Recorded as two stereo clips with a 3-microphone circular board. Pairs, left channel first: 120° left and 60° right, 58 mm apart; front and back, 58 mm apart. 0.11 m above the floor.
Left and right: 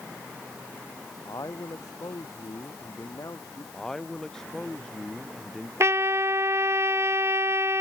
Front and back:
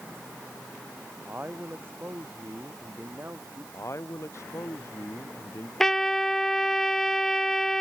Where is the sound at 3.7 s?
40° left.